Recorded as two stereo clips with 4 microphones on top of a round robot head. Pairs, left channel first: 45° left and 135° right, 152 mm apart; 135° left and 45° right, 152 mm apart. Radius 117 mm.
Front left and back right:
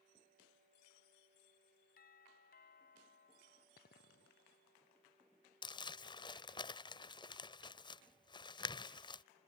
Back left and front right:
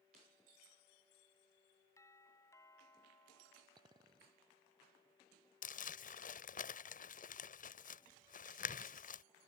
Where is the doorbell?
65° left.